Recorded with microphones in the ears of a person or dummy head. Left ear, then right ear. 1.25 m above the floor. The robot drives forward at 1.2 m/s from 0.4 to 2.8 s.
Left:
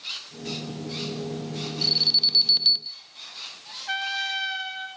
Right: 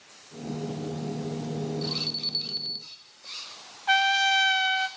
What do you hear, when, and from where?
1.8 s an alarm: 30° left (ahead or behind), 4 m; by 3.0 s 40° left (ahead or behind), 3 m
3.9 s a trumpet: 40° right (ahead or behind), 2.5 m